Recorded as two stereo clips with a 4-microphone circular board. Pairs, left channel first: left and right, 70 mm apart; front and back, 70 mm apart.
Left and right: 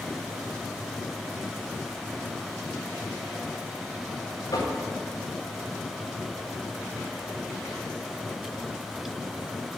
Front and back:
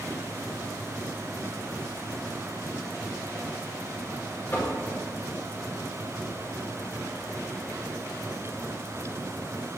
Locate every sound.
4.5 s knocking: 60° left, 5 m